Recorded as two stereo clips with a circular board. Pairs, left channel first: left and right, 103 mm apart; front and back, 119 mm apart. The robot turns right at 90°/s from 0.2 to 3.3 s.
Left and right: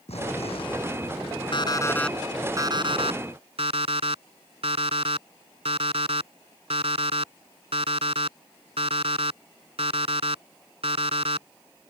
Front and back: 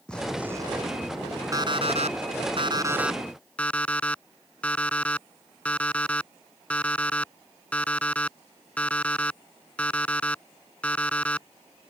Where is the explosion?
80° left; by 1.4 s 170° right.